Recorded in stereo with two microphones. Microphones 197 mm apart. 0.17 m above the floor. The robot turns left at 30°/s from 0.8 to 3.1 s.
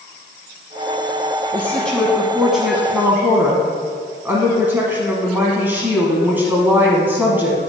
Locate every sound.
1.5 s a woman speaking: 10° left (ahead or behind), 1.1 m; by 7.6 s 10° right (ahead or behind), 1.1 m